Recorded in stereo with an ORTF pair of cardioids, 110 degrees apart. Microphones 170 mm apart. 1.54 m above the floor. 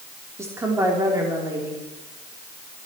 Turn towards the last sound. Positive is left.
turn(degrees=-15)